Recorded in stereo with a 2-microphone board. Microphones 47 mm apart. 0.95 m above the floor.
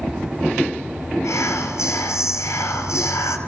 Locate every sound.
1.2 s whispering: 85° left, 5 m